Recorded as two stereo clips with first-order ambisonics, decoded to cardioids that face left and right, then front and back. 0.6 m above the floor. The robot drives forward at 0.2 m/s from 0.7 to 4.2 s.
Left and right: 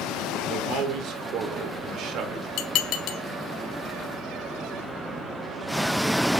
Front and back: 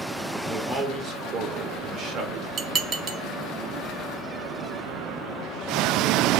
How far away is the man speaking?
About 1.4 m.